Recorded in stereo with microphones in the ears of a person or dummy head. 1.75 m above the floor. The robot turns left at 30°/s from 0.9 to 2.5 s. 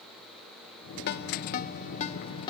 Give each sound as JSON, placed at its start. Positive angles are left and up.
{"t": 1.1, "sound": "a ringtone", "side_deg": 60, "distance_m": 1.3}